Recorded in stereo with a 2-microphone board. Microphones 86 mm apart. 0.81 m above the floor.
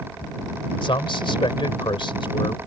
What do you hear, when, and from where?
0.8 s a man speaking: 80° left